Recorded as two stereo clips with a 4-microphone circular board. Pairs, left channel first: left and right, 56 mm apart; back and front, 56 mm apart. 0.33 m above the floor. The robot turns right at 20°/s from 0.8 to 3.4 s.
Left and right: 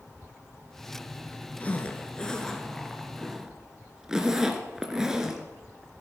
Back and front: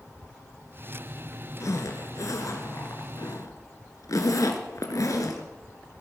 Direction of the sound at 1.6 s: 155° left.